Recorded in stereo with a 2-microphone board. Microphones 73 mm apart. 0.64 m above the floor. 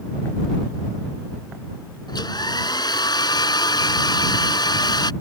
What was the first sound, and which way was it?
A hair dryer, 80° left.